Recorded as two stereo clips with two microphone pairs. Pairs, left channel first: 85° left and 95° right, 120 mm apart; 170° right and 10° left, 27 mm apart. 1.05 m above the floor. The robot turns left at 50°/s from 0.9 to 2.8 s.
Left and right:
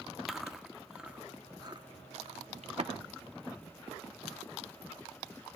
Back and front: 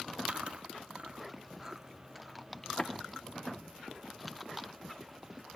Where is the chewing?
10° right, 0.7 m; by 2.9 s 105° right, 0.7 m.